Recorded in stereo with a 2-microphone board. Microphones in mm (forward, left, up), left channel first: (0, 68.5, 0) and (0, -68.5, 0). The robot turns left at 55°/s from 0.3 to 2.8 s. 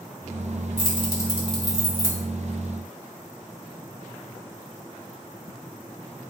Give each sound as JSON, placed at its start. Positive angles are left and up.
{"t": 0.8, "sound": "keys jangling", "side_deg": 40, "distance_m": 1.0}